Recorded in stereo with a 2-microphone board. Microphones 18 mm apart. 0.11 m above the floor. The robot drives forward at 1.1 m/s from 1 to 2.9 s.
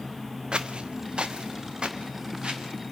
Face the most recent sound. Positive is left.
turn(degrees=-50)  # may be behind; listen again after turning